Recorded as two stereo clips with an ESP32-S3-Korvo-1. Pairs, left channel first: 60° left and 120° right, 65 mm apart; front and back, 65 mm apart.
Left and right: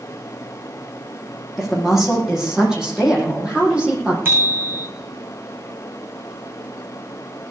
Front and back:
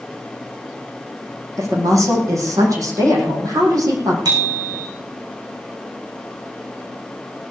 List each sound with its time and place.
1.6 s a woman speaking: 150° left, 7.5 m; by 4.2 s 165° left, 7 m
4.2 s a bicycle bell: straight behind, 7 m